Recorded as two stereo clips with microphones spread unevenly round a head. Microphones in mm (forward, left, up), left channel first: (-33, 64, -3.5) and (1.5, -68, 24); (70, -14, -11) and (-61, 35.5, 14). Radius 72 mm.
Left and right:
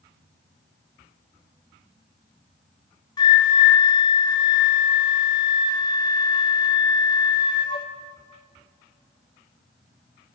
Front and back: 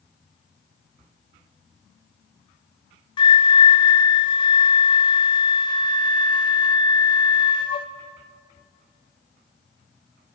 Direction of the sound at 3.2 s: 40° left.